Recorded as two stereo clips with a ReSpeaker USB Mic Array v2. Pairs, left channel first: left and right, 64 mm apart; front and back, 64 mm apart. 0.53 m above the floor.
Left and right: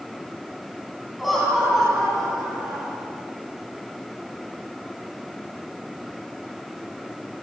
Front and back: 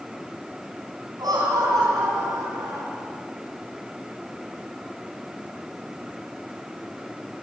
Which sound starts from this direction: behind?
Laughter, at 1.2 s.